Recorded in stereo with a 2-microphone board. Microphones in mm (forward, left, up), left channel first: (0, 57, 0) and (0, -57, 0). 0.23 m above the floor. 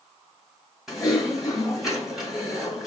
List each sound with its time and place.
0.9 s typing on a keyboard: centre (ahead or behind), 1.7 m